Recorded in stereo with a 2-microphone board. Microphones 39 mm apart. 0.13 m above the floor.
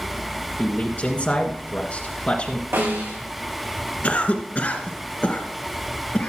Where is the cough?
40° left (ahead or behind), 1.6 m.